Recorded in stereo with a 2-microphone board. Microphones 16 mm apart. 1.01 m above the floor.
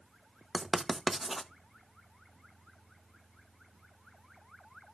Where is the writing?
5° right (ahead or behind), 1.0 m.